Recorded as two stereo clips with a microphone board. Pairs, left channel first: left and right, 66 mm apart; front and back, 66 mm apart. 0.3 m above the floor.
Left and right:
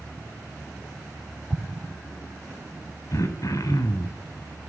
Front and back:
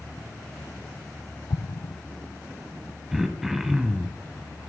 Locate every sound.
1.5 s an explosion: straight ahead, 0.5 m
3.1 s throat clearing: 95° left, 0.9 m